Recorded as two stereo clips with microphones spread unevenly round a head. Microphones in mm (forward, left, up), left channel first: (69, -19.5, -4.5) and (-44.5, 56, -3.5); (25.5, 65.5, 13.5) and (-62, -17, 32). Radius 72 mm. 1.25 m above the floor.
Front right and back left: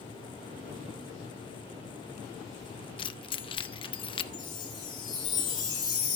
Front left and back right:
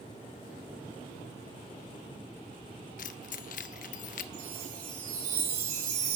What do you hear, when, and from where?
3.0 s keys jangling: 10° left, 0.7 m
4.3 s a chime: 95° right, 5 m